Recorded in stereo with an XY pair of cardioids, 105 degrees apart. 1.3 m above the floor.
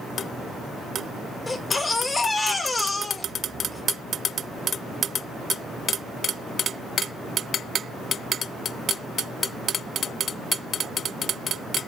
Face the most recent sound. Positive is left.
turn(degrees=20)